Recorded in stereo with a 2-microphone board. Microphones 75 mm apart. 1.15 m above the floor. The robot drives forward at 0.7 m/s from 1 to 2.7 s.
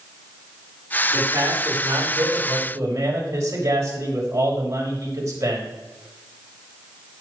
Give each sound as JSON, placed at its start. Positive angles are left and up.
{"t": 1.1, "sound": "a man speaking", "side_deg": -45, "distance_m": 4.5}